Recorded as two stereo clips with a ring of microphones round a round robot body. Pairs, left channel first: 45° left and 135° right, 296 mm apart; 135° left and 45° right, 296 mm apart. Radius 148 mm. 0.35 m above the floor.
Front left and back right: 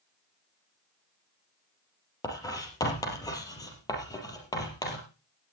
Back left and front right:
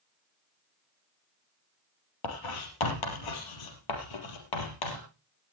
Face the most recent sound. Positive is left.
turn(degrees=125)